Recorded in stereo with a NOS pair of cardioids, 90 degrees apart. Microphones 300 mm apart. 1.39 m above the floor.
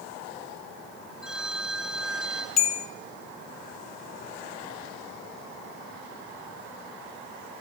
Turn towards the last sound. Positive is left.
turn(degrees=60)